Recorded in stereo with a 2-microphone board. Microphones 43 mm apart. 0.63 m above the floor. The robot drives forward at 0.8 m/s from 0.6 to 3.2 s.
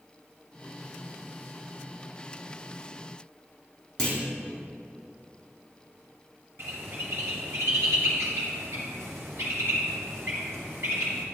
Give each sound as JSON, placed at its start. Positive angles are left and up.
{"t": 4.0, "sound": "a clunk", "side_deg": 15, "distance_m": 2.5}
{"t": 6.6, "sound": "a bird", "side_deg": -80, "distance_m": 2.0}